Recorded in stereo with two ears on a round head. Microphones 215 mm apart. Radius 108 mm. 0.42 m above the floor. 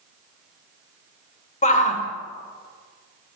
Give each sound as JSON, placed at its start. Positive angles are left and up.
{"t": 1.6, "sound": "a shout", "side_deg": 30, "distance_m": 1.6}